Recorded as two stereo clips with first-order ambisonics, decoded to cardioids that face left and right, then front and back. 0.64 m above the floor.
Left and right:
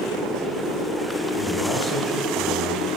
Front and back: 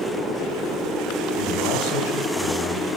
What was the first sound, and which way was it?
A man speaking, 10° left.